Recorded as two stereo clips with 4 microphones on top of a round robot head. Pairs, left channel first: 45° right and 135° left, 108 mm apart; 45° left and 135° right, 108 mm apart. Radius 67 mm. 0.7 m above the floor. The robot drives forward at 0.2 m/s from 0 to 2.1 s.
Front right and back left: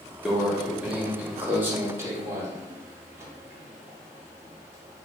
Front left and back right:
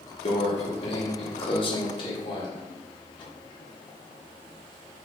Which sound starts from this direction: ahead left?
A microwave, at 0.2 s.